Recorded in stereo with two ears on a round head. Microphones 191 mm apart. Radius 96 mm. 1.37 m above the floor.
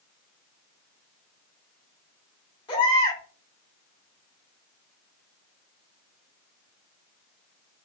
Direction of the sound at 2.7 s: 25° left (ahead or behind).